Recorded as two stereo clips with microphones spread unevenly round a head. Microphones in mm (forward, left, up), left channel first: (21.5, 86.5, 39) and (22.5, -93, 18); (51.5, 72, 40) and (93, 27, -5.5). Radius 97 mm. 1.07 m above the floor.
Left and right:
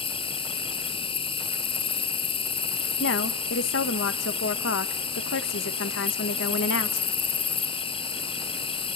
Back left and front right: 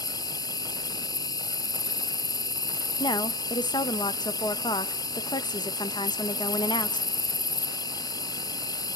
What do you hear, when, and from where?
0.0 s an insect: 105° left, 0.8 m
3.0 s a woman speaking: 110° left, 1.2 m